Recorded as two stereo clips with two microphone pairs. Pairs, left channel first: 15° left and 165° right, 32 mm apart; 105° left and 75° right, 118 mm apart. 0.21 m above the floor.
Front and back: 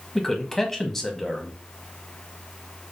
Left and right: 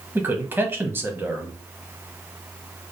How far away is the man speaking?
About 1.0 m.